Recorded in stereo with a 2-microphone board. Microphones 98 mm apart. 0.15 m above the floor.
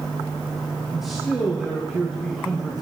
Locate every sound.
0.9 s a man speaking: centre (ahead or behind), 3 m